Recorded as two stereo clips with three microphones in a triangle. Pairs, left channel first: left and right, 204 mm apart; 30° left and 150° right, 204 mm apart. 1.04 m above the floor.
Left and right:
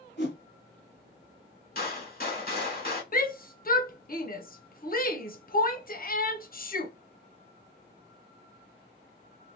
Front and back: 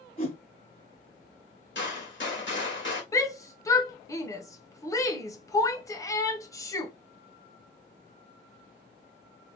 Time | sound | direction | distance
0.2 | a whoosh | 65° left | 1.6 m
1.8 | a gunshot | 50° left | 1.7 m
3.1 | a shout | 95° left | 0.7 m